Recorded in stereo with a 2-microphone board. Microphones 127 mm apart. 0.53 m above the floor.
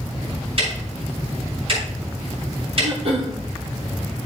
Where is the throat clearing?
50° right (ahead or behind), 2.5 m.